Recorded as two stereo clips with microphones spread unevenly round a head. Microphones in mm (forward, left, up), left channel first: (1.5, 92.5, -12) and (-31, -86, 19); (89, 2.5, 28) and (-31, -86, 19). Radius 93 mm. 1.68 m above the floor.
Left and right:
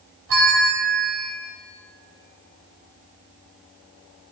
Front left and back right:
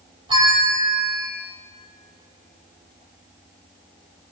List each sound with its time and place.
0.3 s a bell: 85° right, 4 m